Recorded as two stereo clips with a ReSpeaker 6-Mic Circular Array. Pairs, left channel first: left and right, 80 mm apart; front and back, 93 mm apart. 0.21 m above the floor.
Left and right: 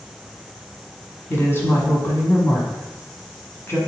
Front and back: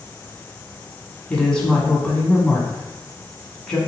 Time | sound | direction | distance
1.3 | a woman speaking | 75° left | 1.2 m